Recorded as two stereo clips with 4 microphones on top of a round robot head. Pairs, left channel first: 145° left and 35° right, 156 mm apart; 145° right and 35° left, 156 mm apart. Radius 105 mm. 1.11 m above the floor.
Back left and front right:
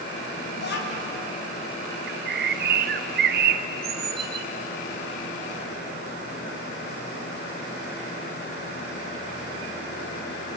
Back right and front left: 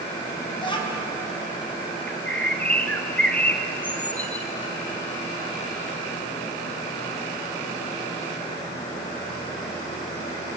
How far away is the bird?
About 1.0 m.